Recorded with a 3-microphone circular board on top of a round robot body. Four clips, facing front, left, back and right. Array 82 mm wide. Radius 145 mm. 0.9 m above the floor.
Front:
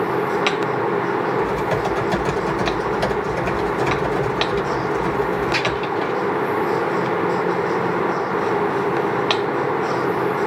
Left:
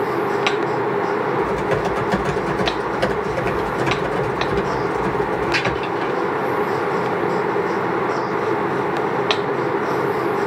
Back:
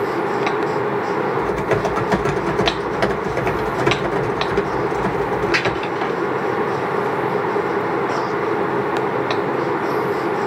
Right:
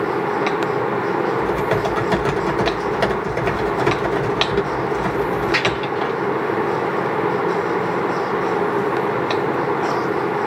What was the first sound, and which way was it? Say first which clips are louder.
Typing on a keyboard: even, back 1 dB; 150° right.